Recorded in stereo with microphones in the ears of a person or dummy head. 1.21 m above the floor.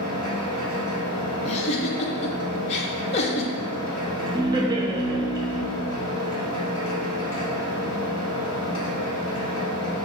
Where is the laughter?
20° right (ahead or behind), 0.7 m.